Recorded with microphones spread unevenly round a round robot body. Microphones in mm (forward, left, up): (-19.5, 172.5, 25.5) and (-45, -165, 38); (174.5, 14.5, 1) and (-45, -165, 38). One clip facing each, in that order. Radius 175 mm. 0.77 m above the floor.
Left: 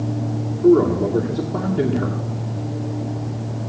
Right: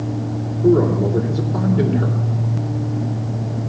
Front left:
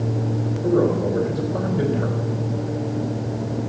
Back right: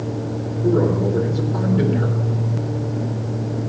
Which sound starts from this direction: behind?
A man speaking, at 0.6 s.